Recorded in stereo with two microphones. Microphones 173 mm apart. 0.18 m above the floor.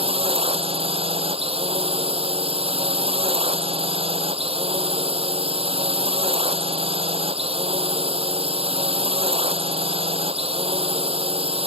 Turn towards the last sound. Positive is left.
turn(degrees=-35)  # may be behind; listen again after turning